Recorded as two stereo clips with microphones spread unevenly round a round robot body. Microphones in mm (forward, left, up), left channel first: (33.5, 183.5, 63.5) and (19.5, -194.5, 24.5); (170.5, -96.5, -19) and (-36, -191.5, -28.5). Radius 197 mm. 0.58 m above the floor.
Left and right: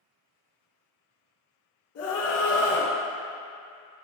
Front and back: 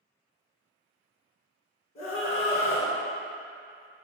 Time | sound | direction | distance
1.9 | a scream | 40° left | 1.4 m